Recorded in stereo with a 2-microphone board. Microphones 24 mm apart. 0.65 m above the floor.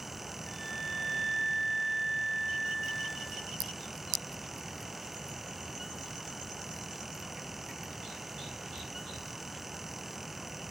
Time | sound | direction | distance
0.5 | a flute | 5° left (ahead or behind) | 1.3 m